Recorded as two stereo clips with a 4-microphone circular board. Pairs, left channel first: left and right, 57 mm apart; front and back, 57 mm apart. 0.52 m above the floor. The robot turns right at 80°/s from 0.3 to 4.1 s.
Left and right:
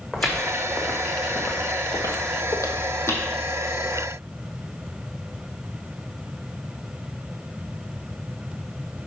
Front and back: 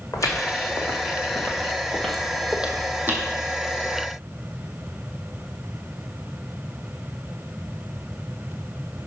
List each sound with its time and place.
0.1 s footsteps: straight ahead, 1.9 m; by 3.3 s 140° left, 1.4 m